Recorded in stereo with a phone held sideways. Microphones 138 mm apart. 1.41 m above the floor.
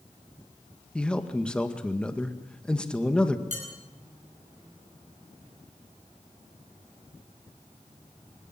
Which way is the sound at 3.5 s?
60° right (ahead or behind).